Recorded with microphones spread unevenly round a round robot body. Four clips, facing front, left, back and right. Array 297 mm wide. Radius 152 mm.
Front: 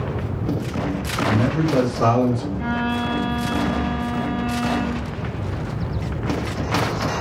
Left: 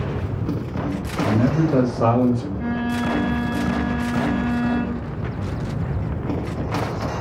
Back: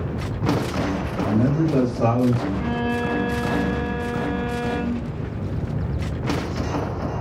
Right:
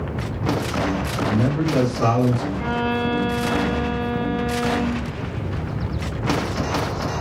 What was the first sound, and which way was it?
A man speaking, 85° left.